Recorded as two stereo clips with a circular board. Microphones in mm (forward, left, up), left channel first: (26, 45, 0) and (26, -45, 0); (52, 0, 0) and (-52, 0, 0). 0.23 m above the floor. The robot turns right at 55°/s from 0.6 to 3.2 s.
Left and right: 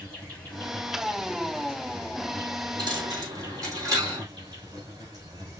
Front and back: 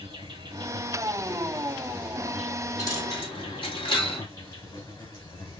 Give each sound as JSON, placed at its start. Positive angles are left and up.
{"t": 0.0, "sound": "an insect", "azimuth_deg": 165, "distance_m": 4.0}
{"t": 2.8, "sound": "a dropped coin", "azimuth_deg": -60, "distance_m": 3.0}